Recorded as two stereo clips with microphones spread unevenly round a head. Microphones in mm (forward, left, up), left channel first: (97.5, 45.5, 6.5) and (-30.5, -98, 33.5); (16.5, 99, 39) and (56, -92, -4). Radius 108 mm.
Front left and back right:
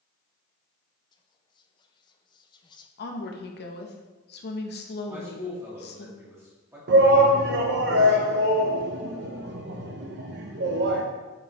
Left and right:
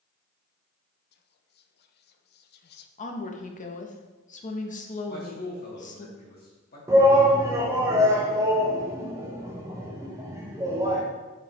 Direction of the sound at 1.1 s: 90° left.